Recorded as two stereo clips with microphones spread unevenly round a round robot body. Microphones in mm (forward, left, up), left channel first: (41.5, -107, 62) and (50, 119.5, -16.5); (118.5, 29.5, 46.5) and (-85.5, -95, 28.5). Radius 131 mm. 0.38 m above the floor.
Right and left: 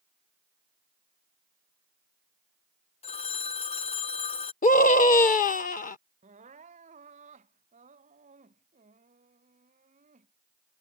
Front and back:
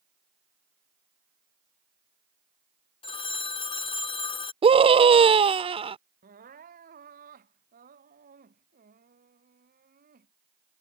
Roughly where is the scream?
Behind right.